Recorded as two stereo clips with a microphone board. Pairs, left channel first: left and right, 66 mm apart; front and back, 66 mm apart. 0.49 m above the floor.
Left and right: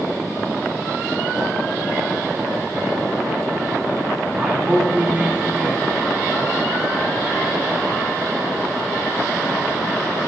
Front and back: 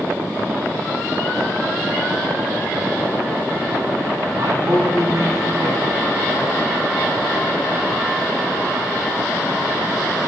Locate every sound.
4.4 s a man speaking: 160° right, 3.5 m